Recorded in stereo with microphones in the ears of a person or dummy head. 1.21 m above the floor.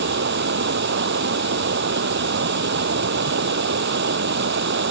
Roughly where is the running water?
Right.